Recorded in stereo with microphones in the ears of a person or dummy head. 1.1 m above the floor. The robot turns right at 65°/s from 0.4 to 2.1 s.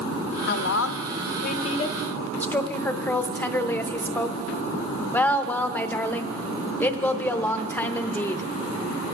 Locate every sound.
0.5 s a woman speaking: 60° left, 0.8 m; by 8.4 s 165° left, 0.8 m